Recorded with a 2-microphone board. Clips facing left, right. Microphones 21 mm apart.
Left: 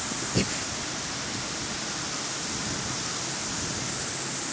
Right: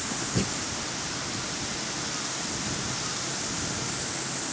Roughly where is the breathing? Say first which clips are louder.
Left 3 dB; left.